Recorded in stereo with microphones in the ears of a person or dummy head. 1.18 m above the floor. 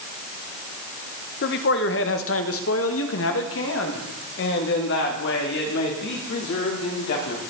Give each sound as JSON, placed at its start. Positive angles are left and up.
{"t": 1.4, "sound": "a man speaking", "side_deg": 55, "distance_m": 1.2}